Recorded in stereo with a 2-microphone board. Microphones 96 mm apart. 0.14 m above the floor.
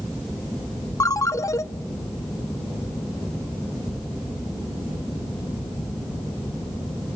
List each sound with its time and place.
1.0 s a ringtone: 35° left (ahead or behind), 0.6 m